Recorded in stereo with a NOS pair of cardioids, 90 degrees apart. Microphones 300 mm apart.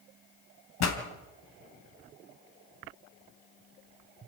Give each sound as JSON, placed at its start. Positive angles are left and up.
{"t": 0.8, "sound": "a pop", "azimuth_deg": 65, "distance_m": 3.5}